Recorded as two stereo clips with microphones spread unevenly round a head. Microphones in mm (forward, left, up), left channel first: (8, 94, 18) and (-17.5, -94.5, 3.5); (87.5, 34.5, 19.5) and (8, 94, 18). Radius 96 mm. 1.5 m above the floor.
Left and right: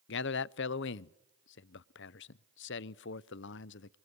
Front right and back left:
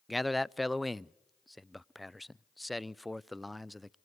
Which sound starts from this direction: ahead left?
A man speaking, at 0.1 s.